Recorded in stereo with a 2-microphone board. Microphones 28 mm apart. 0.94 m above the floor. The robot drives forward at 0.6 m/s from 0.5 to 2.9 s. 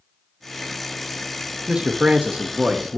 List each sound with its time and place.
1.7 s a man speaking: 30° right (ahead or behind), 0.7 m; by 3.0 s 20° right (ahead or behind), 0.9 m